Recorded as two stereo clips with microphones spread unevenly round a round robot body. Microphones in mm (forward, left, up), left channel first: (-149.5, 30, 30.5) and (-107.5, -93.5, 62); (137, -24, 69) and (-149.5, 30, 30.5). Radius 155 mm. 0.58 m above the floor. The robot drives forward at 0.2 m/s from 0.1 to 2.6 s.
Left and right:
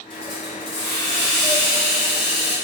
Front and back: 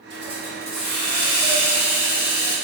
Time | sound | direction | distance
0.1 | a hiss | 135° left | 2.0 m